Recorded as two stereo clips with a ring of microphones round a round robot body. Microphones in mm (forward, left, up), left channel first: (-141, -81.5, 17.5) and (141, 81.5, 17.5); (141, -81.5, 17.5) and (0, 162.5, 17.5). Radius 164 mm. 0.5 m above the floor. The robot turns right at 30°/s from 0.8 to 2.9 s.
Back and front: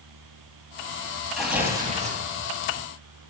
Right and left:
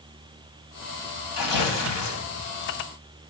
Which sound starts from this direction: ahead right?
Tearing paper, at 1.3 s.